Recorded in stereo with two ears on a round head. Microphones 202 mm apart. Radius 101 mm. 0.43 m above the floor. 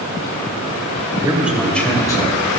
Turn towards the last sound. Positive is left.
turn(degrees=25)  # may be behind; listen again after turning